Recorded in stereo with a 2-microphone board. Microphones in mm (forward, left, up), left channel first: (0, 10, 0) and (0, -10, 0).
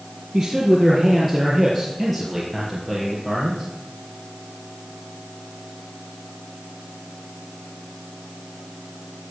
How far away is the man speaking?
About 3.5 m.